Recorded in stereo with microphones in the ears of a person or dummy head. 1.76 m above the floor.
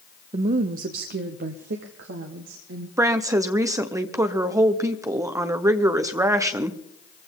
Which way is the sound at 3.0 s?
15° right (ahead or behind).